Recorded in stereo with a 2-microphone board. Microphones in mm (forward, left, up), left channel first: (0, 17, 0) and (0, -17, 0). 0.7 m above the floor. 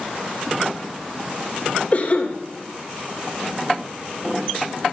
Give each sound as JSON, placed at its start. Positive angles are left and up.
{"t": 1.9, "sound": "a cough", "side_deg": 40, "distance_m": 3.0}